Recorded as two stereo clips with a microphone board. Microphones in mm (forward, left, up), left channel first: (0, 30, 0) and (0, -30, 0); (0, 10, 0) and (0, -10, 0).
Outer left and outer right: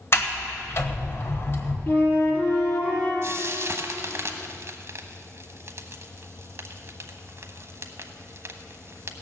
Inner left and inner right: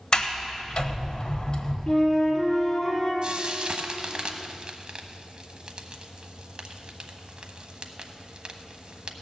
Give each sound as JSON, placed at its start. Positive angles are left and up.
{"t": 0.1, "sound": "a sliding door", "side_deg": 40, "distance_m": 1.1}
{"t": 1.9, "sound": "a flute", "side_deg": 30, "distance_m": 3.5}
{"t": 3.2, "sound": "frying", "side_deg": -50, "distance_m": 0.9}